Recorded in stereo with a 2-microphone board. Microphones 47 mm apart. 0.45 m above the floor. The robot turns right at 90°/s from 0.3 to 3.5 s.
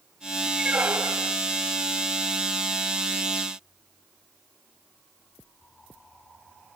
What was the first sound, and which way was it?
A squeak, 165° right.